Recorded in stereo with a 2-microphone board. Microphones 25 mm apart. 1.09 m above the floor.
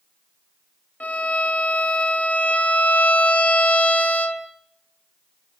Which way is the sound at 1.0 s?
80° left.